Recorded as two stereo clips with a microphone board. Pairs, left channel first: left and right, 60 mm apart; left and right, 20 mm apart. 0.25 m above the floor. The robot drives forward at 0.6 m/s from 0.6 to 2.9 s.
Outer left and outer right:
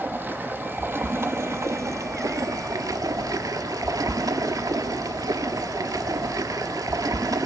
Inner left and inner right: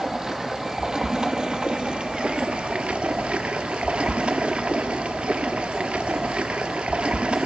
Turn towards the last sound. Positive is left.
turn(degrees=-85)